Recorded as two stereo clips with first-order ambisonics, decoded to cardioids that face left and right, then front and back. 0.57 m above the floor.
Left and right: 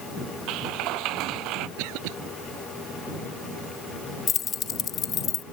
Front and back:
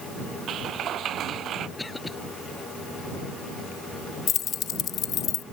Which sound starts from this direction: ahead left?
Keys jangling, at 4.3 s.